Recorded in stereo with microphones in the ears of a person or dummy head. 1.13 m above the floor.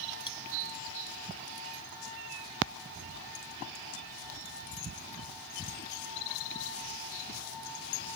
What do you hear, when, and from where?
0.3 s cutlery clinking: 30° left (ahead or behind)